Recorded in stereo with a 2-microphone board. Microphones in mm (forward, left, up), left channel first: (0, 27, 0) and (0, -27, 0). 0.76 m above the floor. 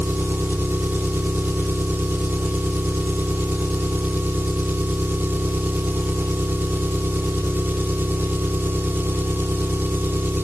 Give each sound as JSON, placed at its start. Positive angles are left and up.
{"t": 0.0, "sound": "an engine running", "side_deg": -40, "distance_m": 0.9}